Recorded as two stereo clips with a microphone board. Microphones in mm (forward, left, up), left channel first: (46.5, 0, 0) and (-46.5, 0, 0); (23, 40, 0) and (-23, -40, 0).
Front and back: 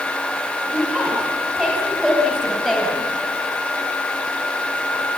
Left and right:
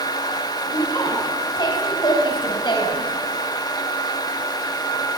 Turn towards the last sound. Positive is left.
turn(degrees=85)